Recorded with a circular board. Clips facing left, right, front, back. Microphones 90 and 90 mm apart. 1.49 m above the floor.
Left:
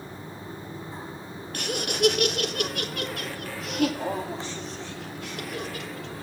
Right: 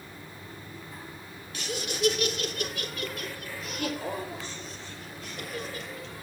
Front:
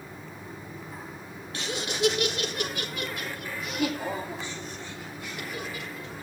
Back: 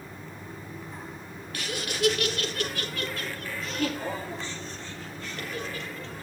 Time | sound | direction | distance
1.5 | laughter | 65° left | 1.0 m